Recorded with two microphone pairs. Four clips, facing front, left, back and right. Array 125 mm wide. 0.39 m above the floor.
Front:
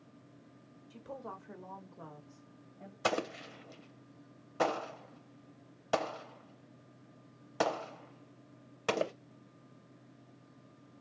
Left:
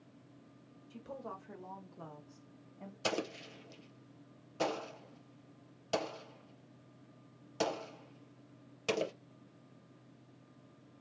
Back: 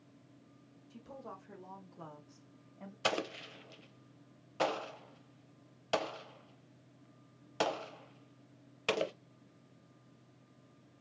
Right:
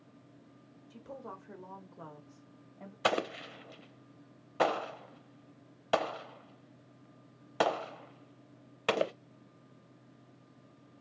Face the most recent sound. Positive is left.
turn(degrees=-75)